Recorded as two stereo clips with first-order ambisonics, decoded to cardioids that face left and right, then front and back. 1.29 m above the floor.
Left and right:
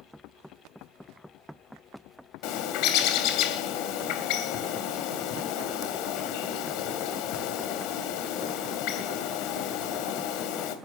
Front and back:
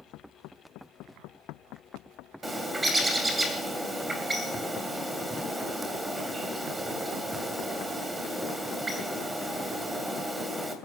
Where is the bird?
100° left, 2.5 m.